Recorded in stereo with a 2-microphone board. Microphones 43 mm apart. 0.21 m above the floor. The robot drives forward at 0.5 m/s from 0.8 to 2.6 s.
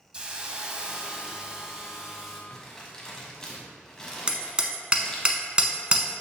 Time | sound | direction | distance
0.1 | a hiss | 20° right (ahead or behind) | 0.7 m
2.5 | crumpling | 15° left (ahead or behind) | 1.3 m
4.3 | hammering | 20° right (ahead or behind) | 0.5 m